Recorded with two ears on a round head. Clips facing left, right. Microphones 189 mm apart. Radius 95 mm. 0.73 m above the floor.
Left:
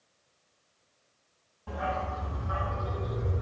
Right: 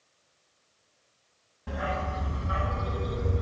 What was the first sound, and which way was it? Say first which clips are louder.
A dog barking: right 1 dB; 25° right (ahead or behind).